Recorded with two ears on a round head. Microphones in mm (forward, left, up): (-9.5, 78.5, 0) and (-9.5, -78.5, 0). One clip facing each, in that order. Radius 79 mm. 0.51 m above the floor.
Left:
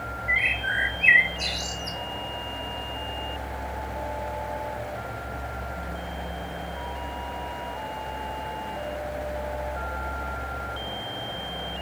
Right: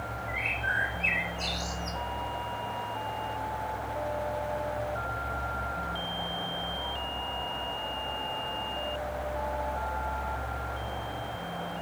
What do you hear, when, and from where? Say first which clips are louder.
0.3 s a bird: left 3 dB; 20° left (ahead or behind), 0.6 m